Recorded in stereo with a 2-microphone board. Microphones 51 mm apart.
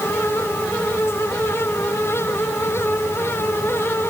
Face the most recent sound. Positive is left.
No sound to turn to.